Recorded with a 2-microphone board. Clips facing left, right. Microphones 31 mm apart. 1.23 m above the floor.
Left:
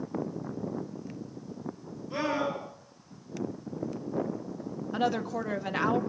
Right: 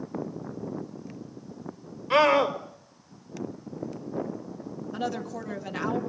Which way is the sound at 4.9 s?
20° left (ahead or behind).